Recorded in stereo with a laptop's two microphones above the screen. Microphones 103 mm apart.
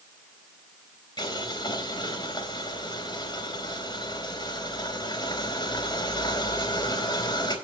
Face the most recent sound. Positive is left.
turn(degrees=45)  # may be behind; listen again after turning